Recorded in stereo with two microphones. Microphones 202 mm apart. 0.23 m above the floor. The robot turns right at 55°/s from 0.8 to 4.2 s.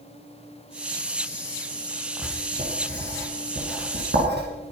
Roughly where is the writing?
Centre.